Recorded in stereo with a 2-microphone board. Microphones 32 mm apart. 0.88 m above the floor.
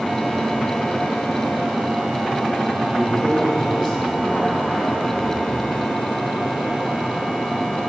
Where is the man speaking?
25° left (ahead or behind), 2 m.